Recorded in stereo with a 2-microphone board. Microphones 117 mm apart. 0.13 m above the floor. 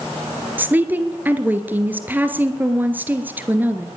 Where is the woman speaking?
15° right (ahead or behind), 2.5 m.